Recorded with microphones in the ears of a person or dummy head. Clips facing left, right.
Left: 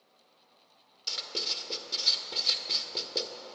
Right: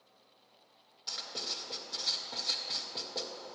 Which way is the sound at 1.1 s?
40° left (ahead or behind).